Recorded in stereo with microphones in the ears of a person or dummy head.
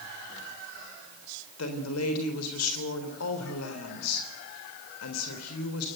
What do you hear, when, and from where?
1.6 s a woman speaking: 85° left, 3.5 m